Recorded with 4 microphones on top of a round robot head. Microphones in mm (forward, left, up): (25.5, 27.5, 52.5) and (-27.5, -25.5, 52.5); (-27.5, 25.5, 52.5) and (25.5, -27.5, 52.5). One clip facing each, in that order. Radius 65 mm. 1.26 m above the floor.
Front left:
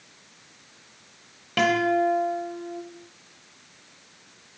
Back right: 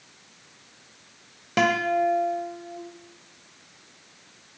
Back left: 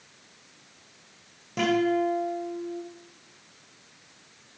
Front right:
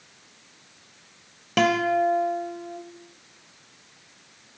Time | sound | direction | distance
1.6 | a guitar | 65° right | 1.4 m